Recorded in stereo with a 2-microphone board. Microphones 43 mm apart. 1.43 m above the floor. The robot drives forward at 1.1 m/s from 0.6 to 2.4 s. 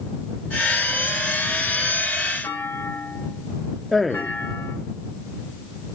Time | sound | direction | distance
2.4 | a clunk | 60° left (ahead or behind) | 6 m
3.9 | a man speaking | 5° left (ahead or behind) | 0.6 m